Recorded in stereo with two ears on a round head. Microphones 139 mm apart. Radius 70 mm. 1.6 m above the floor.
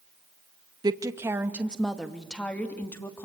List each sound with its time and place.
0.8 s a woman speaking: 25° right (ahead or behind), 1.7 m; by 3.2 s 15° left (ahead or behind), 3 m